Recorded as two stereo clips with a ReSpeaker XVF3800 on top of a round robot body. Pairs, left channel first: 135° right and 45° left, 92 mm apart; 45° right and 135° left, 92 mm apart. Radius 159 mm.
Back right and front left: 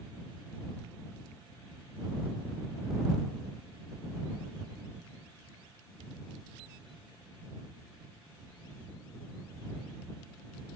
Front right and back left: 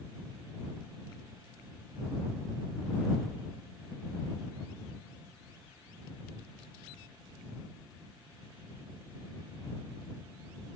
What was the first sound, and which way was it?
Only background noise.